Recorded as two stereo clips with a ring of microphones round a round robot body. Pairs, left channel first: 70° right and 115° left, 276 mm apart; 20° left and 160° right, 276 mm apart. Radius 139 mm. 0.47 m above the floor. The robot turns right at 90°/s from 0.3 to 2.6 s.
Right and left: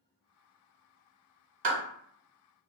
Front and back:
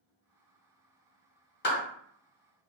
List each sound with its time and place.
1.6 s a clap: 75° left, 1.1 m; by 1.8 s 90° left, 1.1 m